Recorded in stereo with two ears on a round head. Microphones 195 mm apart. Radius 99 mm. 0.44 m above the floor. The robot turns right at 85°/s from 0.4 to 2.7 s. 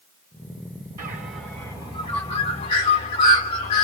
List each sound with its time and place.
1.0 s a bird: 15° right (ahead or behind), 1.1 m; by 3.9 s 25° left (ahead or behind), 1.1 m